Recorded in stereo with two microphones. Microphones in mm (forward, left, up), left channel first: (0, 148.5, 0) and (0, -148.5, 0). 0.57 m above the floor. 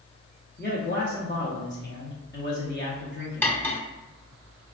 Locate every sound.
0.6 s a man speaking: 35° left (ahead or behind), 0.7 m
3.4 s cutlery clinking: 5° left (ahead or behind), 0.6 m